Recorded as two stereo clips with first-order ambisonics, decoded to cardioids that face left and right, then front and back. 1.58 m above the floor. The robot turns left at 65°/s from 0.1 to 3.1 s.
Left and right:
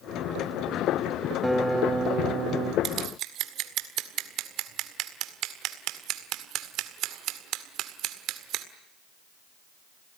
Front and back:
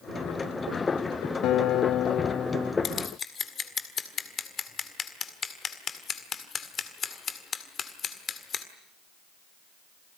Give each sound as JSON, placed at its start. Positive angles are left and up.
{"t": 1.4, "sound": "a guitar", "azimuth_deg": 5, "distance_m": 0.6}
{"t": 2.8, "sound": "scissors", "azimuth_deg": -45, "distance_m": 1.8}